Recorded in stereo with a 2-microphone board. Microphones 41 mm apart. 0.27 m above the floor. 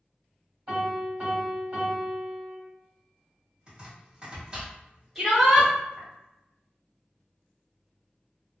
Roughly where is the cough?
I don't hear a cough.